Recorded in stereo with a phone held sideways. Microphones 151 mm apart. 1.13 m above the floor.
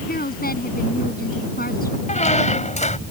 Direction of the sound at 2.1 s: 50° left (ahead or behind).